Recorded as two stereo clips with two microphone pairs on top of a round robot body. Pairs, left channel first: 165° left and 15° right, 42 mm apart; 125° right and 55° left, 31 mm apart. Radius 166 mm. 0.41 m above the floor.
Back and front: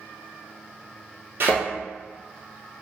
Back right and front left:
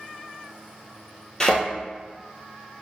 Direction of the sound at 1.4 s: 55° right.